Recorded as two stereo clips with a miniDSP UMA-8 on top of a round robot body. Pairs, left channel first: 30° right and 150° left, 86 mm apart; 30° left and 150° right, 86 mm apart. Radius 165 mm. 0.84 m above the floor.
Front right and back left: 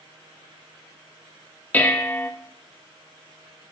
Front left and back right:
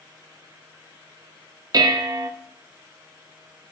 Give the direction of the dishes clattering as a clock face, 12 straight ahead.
3 o'clock.